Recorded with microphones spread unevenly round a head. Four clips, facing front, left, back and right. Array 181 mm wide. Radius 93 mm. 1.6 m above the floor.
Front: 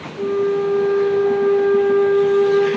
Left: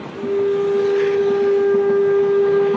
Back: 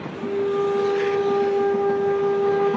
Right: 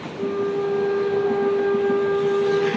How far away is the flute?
About 7.5 m.